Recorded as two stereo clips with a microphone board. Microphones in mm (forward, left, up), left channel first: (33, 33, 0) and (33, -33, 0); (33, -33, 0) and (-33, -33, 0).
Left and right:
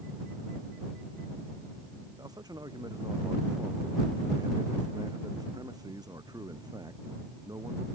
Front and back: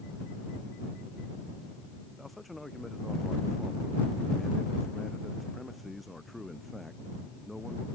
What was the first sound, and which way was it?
A man speaking, 90° right.